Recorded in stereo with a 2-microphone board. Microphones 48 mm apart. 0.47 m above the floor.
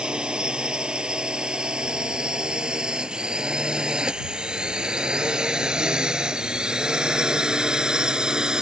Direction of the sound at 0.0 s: 20° right (ahead or behind).